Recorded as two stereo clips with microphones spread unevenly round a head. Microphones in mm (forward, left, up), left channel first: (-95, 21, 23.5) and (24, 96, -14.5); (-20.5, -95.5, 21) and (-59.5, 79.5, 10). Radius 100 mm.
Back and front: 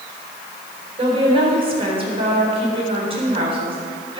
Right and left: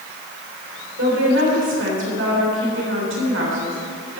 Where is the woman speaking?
80° left, 4 m.